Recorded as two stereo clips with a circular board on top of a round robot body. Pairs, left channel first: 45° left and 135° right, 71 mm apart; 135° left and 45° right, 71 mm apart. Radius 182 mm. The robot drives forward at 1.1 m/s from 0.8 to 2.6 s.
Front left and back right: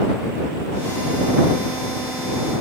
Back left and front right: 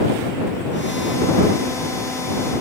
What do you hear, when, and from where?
Only background noise.